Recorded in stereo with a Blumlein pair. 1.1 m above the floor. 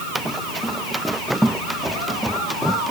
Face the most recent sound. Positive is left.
turn(degrees=0)